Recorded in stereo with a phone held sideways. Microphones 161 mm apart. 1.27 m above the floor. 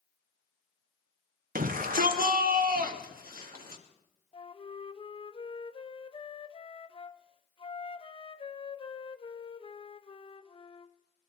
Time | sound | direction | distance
1.6 | a shout | 60° right (ahead or behind) | 0.8 m
4.3 | a flute | 35° left (ahead or behind) | 0.6 m